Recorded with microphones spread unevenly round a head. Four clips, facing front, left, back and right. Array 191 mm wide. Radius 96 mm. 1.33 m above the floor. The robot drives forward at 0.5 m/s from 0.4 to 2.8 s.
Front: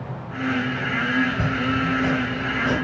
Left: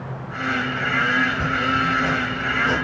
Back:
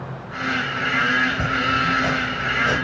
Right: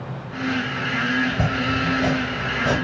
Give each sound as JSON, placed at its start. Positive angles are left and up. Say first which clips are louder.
{"t": 1.2, "sound": "chopping", "louder": "left 1 dB, back 1 dB", "azimuth_deg": -80, "distance_m": 2.5}